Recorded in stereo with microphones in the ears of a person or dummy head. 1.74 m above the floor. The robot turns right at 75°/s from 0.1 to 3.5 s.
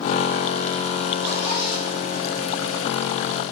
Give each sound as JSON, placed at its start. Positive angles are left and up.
{"t": 1.2, "sound": "a zipper", "side_deg": 5, "distance_m": 6.0}